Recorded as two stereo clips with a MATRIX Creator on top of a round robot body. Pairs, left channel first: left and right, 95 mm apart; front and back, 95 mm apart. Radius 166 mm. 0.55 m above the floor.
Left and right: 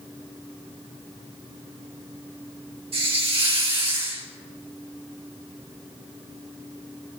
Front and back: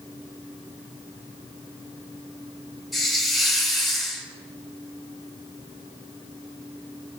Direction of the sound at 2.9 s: 90° right.